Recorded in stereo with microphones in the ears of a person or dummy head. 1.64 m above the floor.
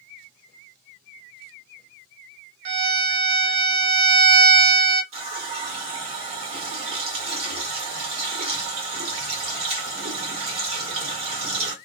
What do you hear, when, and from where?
2.6 s a violin: 55° right (ahead or behind), 1.5 m
5.1 s a running tap: 35° right (ahead or behind), 1.6 m